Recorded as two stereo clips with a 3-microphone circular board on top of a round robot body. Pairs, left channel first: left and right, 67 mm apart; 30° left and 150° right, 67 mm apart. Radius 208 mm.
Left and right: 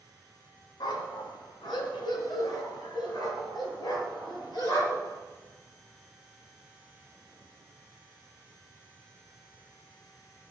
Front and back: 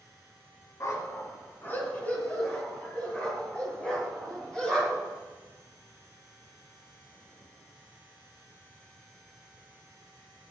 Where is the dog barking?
80° left, 2 m; by 5.1 s 110° left, 7.5 m.